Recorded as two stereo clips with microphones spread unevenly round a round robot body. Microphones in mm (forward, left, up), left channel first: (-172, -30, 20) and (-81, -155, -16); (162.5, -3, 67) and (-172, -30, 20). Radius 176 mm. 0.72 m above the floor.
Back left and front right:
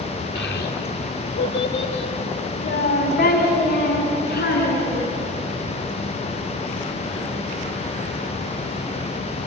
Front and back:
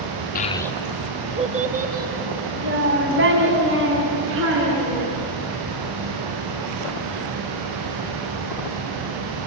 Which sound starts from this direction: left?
A child speaking, at 0.3 s.